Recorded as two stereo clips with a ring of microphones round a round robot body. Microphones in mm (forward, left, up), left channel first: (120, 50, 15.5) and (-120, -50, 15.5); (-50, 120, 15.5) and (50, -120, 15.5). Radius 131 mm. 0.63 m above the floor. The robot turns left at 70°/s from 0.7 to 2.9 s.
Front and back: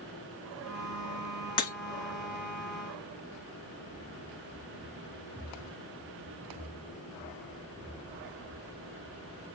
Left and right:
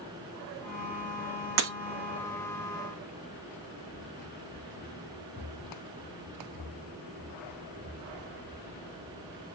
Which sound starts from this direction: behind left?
Running footsteps, at 3.9 s.